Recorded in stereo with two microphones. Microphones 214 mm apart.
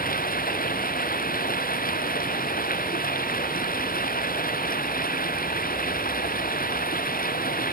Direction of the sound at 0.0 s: 45° left (ahead or behind).